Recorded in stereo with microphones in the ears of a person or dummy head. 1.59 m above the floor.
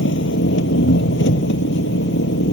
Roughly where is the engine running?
Left.